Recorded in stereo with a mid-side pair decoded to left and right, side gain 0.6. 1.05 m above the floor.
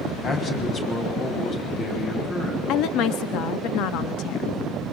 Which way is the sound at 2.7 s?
70° left.